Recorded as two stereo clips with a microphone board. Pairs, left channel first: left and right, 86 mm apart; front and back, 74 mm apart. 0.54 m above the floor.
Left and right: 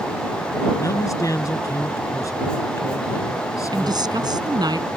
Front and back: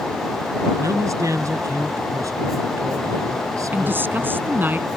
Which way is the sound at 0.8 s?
140° left.